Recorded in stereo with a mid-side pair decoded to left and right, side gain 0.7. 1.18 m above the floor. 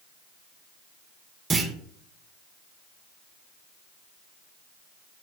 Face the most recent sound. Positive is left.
turn(degrees=-30)